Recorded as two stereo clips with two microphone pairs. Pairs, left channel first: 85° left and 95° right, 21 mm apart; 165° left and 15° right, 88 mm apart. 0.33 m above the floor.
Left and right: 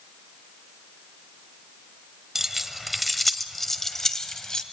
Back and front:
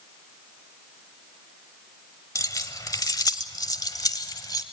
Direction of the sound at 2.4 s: 170° right.